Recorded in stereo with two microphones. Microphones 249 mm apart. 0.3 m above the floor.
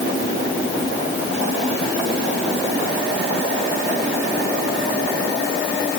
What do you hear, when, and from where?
Only background noise.